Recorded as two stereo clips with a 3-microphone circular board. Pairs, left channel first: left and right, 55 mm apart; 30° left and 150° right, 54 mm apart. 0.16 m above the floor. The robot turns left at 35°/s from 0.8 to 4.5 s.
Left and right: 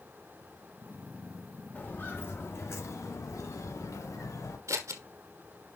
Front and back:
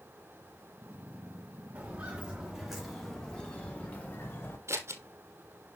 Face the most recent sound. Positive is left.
turn(degrees=-110)